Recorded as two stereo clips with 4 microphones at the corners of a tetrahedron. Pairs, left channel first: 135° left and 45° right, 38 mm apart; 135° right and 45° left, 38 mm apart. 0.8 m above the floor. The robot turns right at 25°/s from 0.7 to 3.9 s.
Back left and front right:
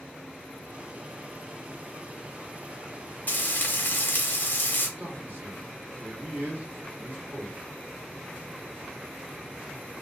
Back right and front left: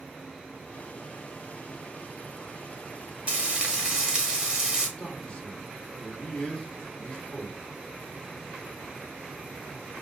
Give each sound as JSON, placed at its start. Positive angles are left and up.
{"t": 3.3, "sound": "frying", "azimuth_deg": 100, "distance_m": 1.1}
{"t": 5.0, "sound": "a man speaking", "azimuth_deg": -70, "distance_m": 1.3}